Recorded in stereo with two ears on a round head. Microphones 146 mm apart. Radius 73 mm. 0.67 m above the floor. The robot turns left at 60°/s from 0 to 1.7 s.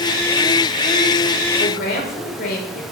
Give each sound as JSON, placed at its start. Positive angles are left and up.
{"t": 1.6, "sound": "a woman speaking", "side_deg": 50, "distance_m": 2.0}